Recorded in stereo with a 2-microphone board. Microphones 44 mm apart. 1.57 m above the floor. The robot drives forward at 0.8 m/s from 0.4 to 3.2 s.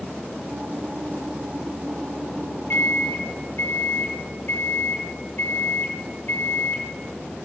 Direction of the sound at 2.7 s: 55° left (ahead or behind).